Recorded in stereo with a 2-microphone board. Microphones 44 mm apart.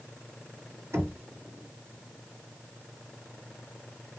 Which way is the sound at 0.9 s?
75° right (ahead or behind).